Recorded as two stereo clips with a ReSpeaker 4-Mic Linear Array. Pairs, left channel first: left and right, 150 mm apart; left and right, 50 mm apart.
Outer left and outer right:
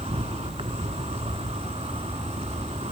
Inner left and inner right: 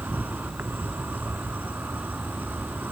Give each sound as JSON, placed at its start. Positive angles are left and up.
{"t": 0.0, "sound": "an insect", "side_deg": -45, "distance_m": 1.0}